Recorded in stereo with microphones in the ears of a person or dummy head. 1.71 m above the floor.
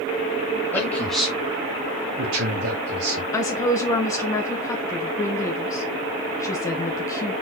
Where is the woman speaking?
10° left (ahead or behind), 1.1 m.